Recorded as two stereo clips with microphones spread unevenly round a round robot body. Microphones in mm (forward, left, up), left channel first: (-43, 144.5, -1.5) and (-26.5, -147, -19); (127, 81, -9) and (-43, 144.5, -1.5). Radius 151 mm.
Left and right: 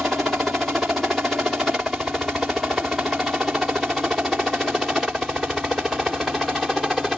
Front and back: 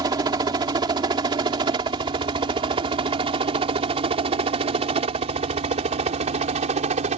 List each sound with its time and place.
0.0 s a helicopter: 170° right; by 7.2 s 175° right